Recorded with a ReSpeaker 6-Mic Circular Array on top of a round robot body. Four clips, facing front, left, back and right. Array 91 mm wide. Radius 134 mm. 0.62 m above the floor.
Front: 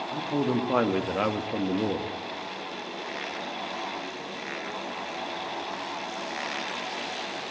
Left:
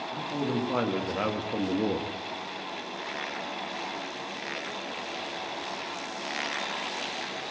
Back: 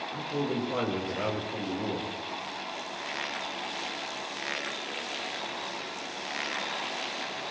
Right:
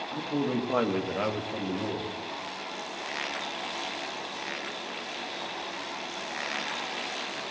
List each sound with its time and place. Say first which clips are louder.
0.1 s a man speaking: right 2 dB, front 5 dB; 25° right, 1.5 m; by 2.1 s 50° left, 1.2 m